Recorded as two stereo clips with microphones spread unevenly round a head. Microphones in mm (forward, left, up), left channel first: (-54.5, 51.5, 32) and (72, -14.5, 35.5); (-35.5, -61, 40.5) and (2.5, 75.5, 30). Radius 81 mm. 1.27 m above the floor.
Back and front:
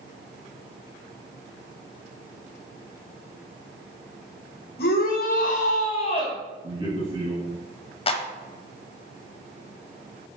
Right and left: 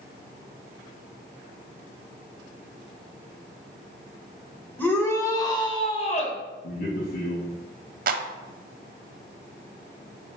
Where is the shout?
175° left, 2.0 m; by 6.4 s 145° right, 1.6 m.